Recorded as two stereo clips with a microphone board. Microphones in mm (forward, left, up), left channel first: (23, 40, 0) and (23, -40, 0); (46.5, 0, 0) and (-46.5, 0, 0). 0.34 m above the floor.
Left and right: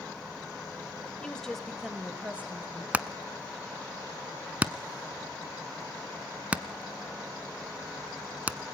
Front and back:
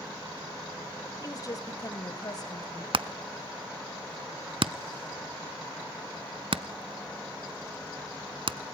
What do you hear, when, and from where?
1.2 s a woman speaking: 20° left, 1.9 m; by 2.8 s 30° right, 2.5 m
2.9 s hammering: 160° right, 0.7 m